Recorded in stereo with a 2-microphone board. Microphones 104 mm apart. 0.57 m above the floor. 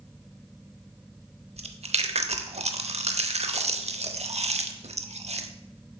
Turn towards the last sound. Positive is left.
turn(degrees=-80)